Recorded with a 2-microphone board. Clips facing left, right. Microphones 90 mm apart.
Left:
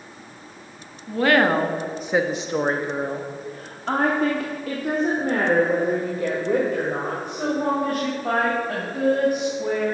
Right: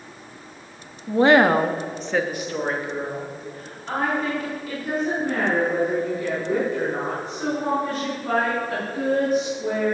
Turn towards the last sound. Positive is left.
turn(degrees=70)  # may be behind; listen again after turning